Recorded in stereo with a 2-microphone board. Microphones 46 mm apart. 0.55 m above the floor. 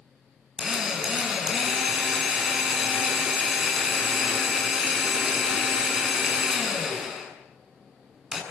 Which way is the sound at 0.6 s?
5° right (ahead or behind).